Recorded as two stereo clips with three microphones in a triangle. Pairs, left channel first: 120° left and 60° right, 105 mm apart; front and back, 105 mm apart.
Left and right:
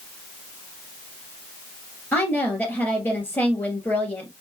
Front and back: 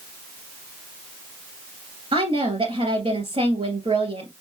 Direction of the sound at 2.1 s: 165° right.